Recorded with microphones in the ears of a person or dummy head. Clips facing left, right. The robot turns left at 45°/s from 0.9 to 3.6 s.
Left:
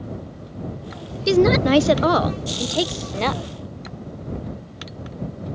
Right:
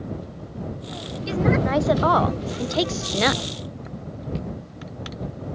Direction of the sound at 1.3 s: 70° left.